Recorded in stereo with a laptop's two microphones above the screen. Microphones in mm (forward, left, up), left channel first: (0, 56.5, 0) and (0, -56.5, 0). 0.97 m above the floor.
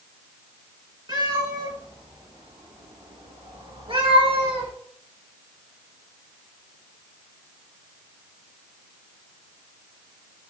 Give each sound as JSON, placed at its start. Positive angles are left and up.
{"t": 1.1, "sound": "a cat meowing", "side_deg": -40, "distance_m": 7.5}